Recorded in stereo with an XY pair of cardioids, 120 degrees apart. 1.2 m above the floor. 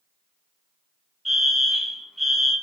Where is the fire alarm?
5° right, 3 m.